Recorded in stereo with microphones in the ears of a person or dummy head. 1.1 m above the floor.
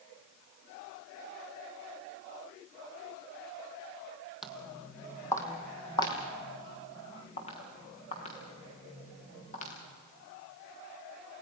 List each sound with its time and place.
4.4 s footsteps: centre (ahead or behind), 2 m; by 9.7 s 40° left (ahead or behind), 7.5 m